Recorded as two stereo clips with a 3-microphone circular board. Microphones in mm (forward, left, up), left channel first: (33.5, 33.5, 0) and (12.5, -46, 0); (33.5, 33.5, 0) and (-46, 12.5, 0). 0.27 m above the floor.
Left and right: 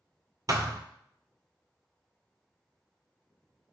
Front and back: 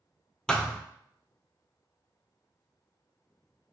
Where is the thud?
65° right, 0.5 m.